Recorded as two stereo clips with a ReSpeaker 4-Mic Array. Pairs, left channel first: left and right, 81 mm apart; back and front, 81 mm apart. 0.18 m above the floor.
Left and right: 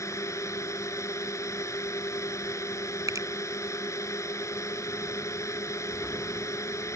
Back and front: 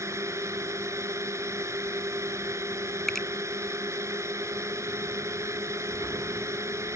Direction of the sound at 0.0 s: 45° left.